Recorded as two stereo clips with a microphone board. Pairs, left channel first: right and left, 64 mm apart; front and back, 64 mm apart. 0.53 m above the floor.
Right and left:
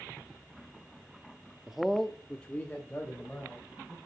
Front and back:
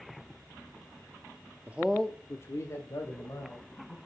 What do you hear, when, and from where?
1.7 s a man speaking: 160° left, 0.7 m; by 4.0 s 25° right, 3 m